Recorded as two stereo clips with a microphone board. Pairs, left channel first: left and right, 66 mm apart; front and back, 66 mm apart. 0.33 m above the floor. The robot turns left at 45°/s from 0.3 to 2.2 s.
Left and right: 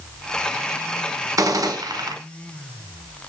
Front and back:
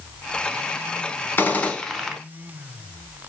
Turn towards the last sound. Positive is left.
turn(degrees=-95)